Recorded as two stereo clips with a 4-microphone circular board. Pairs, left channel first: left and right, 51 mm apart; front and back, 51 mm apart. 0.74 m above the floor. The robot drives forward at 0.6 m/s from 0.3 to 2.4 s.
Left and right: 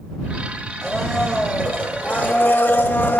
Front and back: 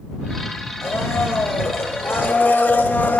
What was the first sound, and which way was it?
A blender, 15° left.